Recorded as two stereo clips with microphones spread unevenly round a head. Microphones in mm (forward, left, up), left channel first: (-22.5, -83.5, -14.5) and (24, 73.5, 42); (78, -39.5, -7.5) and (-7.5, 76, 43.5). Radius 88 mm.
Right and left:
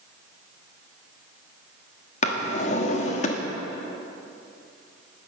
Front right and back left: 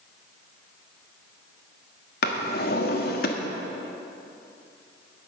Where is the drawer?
55° right, 1.2 m.